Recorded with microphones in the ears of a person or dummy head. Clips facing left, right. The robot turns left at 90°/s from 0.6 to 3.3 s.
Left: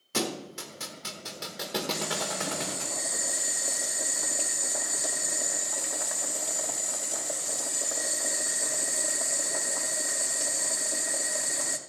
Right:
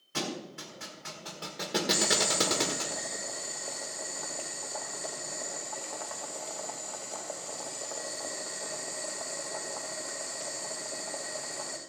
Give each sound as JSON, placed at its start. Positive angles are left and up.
{"t": 0.1, "sound": "a thud", "side_deg": 65, "distance_m": 1.4}
{"t": 1.9, "sound": "boiling", "azimuth_deg": -80, "distance_m": 1.1}